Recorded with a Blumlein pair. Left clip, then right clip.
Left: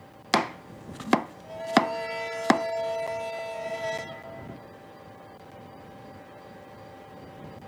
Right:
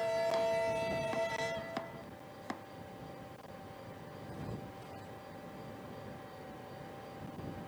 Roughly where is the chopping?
Ahead left.